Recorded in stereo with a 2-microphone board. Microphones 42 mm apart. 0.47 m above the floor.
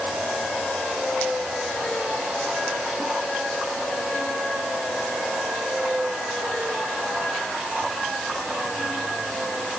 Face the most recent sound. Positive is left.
No sound to turn to.